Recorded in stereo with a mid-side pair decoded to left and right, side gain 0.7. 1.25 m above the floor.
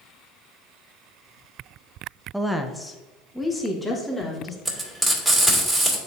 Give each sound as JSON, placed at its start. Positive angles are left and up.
{"t": 2.3, "sound": "a woman speaking", "azimuth_deg": -5, "distance_m": 0.5}
{"t": 4.7, "sound": "frying", "azimuth_deg": -15, "distance_m": 2.5}